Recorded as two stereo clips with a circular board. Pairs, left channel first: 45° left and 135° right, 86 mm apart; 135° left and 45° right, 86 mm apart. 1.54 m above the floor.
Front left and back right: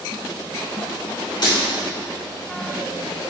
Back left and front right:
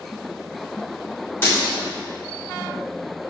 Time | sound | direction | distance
1.4 | breaking glass | 70° left | 2.5 m